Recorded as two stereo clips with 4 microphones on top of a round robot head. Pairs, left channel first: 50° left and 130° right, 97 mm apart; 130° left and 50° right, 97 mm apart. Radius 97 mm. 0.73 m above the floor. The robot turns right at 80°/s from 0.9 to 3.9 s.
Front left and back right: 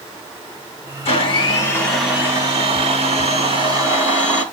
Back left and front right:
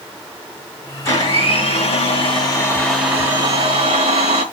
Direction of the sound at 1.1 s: 70° left.